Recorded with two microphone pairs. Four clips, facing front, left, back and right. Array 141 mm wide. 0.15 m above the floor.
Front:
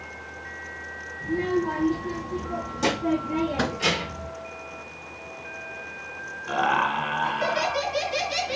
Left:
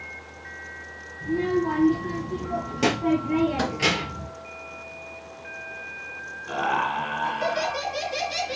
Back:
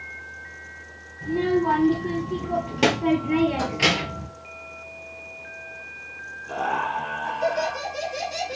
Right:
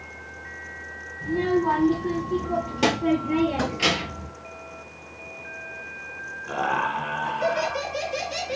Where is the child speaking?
145° right, 2.5 m; by 4.3 s 160° left, 1.6 m.